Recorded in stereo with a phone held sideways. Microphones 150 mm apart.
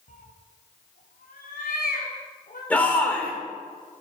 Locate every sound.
0.1 s a cat meowing: 60° left (ahead or behind), 1.6 m; by 2.6 s 80° left, 3.5 m
2.7 s a shout: 10° left (ahead or behind), 3 m